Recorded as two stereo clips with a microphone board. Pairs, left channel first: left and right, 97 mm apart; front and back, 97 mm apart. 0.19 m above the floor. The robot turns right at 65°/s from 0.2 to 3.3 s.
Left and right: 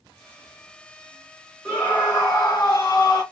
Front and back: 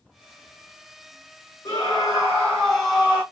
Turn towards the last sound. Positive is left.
turn(degrees=120)